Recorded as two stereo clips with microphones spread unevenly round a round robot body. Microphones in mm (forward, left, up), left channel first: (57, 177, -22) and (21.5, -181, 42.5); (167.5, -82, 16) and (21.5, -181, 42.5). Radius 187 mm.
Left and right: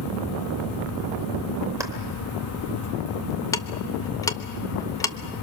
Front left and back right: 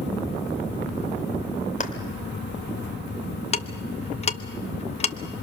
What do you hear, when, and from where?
1.8 s a clap: 15° right, 2.5 m
3.5 s ticking: 20° left, 0.9 m